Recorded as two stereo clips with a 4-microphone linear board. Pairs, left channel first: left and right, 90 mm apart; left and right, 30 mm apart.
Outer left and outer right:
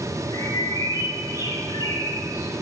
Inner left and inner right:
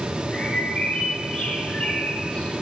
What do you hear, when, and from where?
0.3 s a bird: 45° left (ahead or behind), 5 m